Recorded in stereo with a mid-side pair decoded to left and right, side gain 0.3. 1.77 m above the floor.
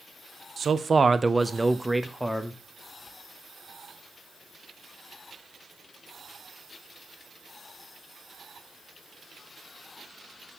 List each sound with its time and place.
0.6 s a man speaking: 60° right, 0.7 m; by 2.6 s 10° left, 1.2 m